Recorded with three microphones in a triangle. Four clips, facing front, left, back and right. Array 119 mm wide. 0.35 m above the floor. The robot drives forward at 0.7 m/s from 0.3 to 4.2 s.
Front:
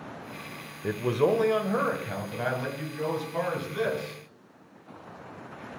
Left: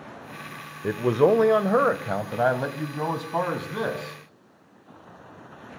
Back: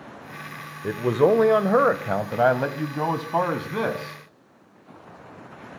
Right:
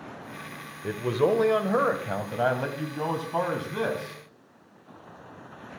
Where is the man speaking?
110° left, 0.9 m; by 4.2 s 170° left, 2.5 m.